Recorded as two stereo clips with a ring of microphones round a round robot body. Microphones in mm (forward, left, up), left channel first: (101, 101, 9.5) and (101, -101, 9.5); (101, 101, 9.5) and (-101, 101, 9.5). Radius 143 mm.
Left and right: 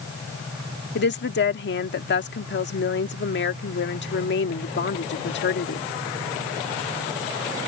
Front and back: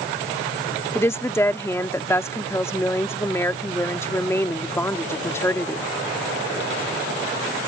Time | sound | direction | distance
0.9 | a woman speaking | 75° left | ?